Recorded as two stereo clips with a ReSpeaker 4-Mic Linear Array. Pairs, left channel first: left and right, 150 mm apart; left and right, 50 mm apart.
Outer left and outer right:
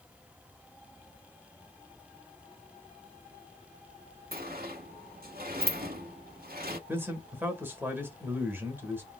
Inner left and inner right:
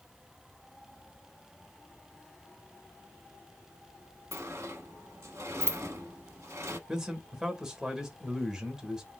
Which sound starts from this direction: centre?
A man speaking, at 6.9 s.